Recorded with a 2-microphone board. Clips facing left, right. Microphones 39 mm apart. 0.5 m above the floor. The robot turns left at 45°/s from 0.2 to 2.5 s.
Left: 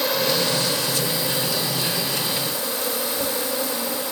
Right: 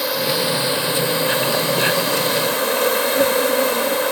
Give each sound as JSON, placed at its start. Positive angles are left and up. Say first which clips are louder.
{"t": 0.0, "sound": "an insect", "louder": "right 1 dB", "azimuth_deg": -5, "distance_m": 1.2}